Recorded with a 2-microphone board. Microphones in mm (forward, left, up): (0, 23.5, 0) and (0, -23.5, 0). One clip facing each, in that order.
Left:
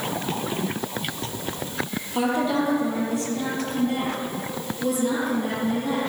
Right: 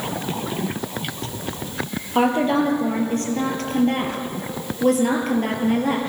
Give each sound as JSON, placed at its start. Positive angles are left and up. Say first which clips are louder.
{"t": 2.1, "sound": "a woman speaking", "louder": "right 5 dB", "side_deg": -40, "distance_m": 5.0}